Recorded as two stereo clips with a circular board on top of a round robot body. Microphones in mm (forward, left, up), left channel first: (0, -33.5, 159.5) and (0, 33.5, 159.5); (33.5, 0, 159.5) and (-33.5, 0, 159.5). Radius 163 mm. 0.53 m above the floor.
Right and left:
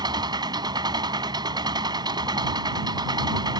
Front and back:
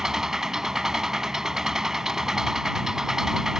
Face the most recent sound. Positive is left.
turn(degrees=100)